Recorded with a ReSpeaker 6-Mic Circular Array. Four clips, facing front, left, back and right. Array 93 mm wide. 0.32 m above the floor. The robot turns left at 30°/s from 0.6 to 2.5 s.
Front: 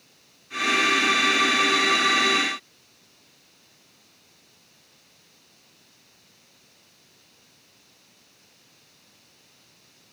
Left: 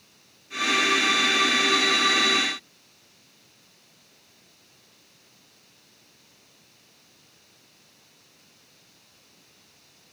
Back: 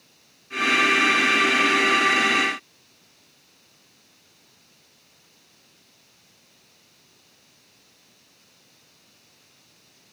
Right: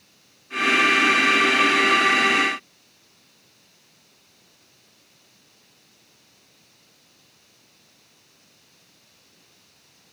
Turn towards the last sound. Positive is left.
No sound to turn to.